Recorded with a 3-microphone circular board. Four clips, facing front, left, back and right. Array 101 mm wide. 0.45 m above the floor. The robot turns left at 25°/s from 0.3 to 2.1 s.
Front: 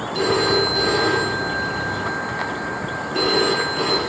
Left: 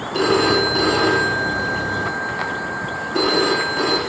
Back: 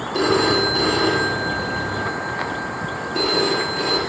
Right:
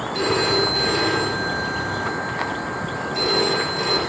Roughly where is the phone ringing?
Behind left.